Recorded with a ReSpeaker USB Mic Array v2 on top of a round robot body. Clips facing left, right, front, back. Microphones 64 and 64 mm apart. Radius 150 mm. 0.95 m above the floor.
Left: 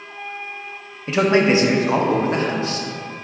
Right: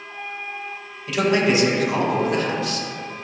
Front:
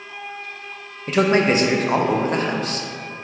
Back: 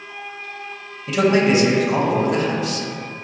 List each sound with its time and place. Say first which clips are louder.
1.1 s a man speaking: left 3 dB, back 1 dB; 35° left, 0.7 m